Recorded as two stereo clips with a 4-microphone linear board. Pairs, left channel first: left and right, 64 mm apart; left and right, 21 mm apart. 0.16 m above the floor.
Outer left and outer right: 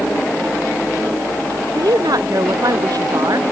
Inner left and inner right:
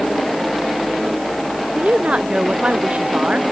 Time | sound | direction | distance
1.8 | a woman speaking | 80° right | ?